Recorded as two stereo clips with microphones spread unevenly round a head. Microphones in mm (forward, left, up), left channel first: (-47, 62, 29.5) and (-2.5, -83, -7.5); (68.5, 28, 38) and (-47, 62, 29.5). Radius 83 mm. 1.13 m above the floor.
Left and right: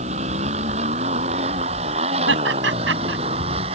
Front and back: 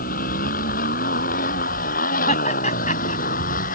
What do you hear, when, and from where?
0.0 s a motorcycle: 20° right; by 3.8 s 15° right
2.3 s laughter: 65° right